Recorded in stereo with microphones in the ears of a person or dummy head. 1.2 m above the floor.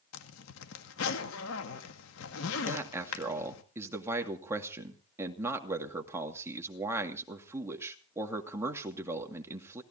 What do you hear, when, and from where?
0.1 s a zipper: 80° left, 2.0 m
2.7 s a man speaking: 10° right (ahead or behind), 2 m